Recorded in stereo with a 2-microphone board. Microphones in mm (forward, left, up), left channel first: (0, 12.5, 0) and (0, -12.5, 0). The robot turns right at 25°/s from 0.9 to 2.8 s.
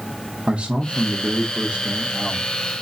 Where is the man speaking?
90° right, 1.1 m; by 2.5 s 50° right, 1.1 m.